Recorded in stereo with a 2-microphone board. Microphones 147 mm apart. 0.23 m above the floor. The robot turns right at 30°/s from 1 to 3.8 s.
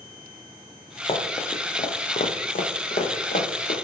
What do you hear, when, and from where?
1.1 s running footsteps: 35° left (ahead or behind), 0.8 m; by 3.7 s 80° left, 1.3 m